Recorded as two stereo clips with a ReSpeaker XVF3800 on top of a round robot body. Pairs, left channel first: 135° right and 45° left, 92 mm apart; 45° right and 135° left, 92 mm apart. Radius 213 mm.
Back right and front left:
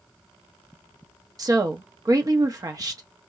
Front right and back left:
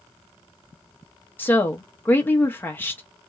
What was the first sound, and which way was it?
A woman speaking, 15° left.